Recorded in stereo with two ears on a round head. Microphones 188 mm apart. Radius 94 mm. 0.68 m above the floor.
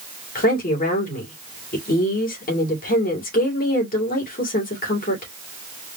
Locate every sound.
0.3 s a woman speaking: 40° left (ahead or behind), 2.5 m